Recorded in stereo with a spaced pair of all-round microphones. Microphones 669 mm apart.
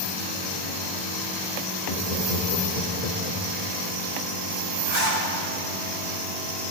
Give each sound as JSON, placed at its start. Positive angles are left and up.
{"t": 1.9, "sound": "laughter", "side_deg": 70, "distance_m": 2.5}
{"t": 4.9, "sound": "a zipper", "side_deg": -75, "distance_m": 4.5}